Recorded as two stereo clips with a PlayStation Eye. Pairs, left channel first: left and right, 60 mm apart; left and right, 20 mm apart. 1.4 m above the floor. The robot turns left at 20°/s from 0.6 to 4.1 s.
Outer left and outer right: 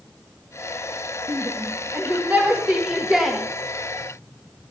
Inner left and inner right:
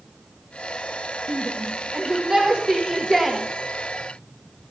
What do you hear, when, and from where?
1.3 s a shout: 45° right (ahead or behind), 1.7 m; by 3.4 s 5° right (ahead or behind), 1.7 m